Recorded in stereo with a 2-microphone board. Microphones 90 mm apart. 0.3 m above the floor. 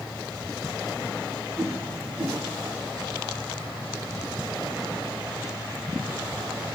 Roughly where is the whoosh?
Right.